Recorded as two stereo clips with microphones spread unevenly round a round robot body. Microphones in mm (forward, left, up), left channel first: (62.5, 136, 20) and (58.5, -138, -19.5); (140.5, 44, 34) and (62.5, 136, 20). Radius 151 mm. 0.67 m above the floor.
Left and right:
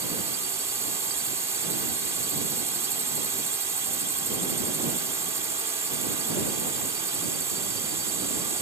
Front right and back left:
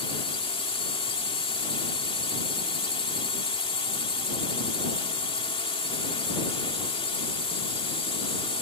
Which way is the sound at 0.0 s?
20° right.